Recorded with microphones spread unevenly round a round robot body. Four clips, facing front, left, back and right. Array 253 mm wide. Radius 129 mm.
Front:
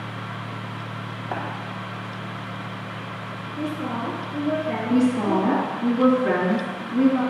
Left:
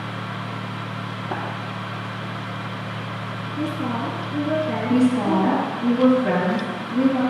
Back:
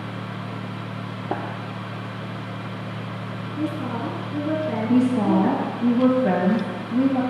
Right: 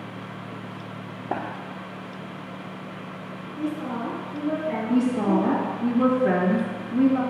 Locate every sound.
1.3 s tapping: 165° right, 2 m
3.6 s a woman speaking: 145° left, 3.5 m
4.9 s a woman speaking: straight behind, 2.0 m